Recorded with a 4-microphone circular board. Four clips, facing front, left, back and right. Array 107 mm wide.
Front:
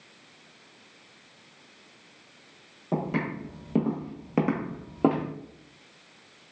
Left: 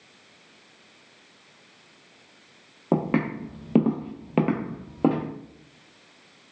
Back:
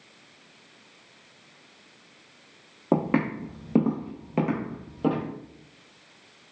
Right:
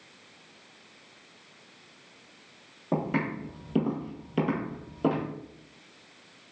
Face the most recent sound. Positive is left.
turn(degrees=40)